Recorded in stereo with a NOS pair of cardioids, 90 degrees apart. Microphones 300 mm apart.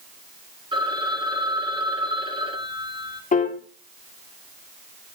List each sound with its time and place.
0.7 s a phone ringing: 15° right, 3 m
3.3 s a piano: 25° left, 2.0 m